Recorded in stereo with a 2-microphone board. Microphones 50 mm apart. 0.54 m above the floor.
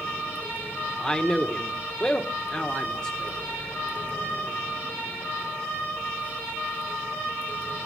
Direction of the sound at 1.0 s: 20° left (ahead or behind).